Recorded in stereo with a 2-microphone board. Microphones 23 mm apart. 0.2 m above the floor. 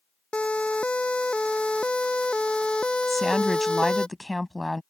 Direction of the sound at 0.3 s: 55° left (ahead or behind).